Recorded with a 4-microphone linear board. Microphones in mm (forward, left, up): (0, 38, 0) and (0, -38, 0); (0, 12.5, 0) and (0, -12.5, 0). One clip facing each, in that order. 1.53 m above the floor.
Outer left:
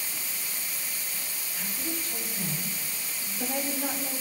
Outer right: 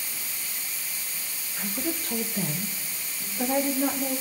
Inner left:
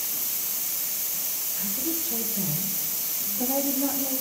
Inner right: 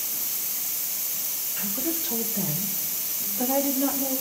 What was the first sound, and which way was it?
A woman speaking, 65° right (ahead or behind).